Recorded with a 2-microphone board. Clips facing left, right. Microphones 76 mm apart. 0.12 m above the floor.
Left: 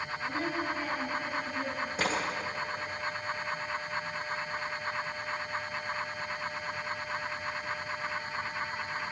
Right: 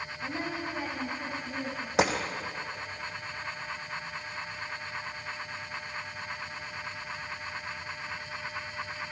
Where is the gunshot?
80° right, 2.5 m.